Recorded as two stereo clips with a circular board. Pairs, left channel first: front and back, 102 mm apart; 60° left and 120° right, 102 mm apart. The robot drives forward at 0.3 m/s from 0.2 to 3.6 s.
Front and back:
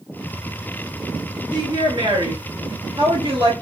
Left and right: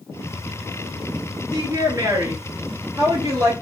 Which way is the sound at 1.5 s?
165° right.